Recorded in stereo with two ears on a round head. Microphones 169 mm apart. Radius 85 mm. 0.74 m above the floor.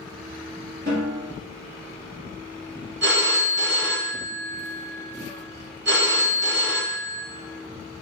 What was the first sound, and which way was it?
A snare drum, 50° right (ahead or behind).